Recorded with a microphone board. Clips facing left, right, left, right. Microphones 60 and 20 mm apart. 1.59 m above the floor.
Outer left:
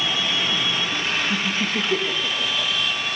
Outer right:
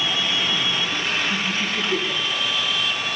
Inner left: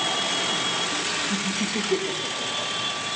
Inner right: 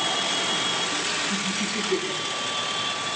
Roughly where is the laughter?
Left.